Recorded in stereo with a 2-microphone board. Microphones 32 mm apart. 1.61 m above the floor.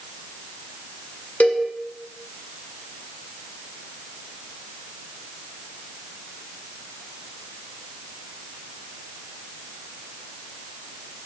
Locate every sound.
1.4 s a cowbell: 60° left (ahead or behind), 0.7 m